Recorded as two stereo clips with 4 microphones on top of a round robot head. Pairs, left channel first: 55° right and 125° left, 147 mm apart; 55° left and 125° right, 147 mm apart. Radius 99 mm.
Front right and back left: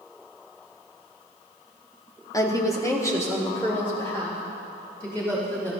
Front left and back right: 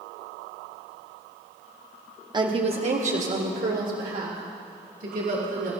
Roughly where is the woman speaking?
Right.